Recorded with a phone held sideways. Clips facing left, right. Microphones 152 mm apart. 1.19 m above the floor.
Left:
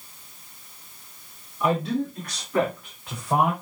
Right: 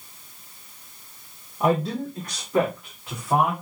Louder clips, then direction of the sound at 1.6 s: Right 1 dB; 50° right (ahead or behind).